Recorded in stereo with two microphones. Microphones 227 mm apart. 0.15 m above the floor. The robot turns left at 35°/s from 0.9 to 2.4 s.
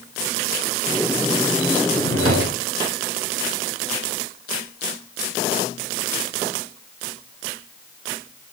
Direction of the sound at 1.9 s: 80° right.